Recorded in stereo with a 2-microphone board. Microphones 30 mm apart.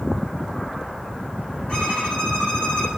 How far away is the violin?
About 7.5 m.